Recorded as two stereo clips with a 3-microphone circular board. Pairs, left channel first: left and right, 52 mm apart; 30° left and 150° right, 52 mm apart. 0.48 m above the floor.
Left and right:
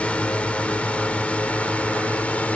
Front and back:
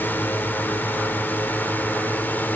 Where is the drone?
35° left; by 2.6 s 45° left.